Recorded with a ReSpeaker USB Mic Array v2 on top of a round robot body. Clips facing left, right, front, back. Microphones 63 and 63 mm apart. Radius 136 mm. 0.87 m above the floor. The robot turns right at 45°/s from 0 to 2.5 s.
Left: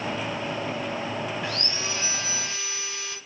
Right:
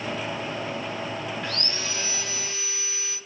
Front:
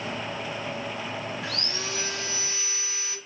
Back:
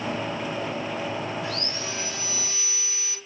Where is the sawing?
5° left, 0.5 m; by 3.2 s 55° left, 0.5 m.